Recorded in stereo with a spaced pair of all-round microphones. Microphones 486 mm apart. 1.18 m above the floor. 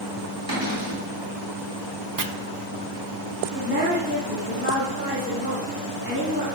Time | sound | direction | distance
0.5 | a cupboard door | 45° right (ahead or behind) | 3.5 m
2.2 | chopping | 40° right (ahead or behind) | 0.6 m
3.5 | a woman speaking | 25° right (ahead or behind) | 3 m